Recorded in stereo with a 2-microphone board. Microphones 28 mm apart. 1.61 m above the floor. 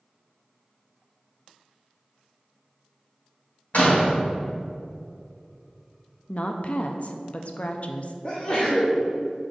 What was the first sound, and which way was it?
A door slam, 55° left (ahead or behind).